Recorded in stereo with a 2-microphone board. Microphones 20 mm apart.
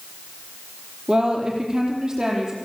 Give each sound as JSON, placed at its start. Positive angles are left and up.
{"t": 1.1, "sound": "a woman speaking", "side_deg": -40, "distance_m": 5.0}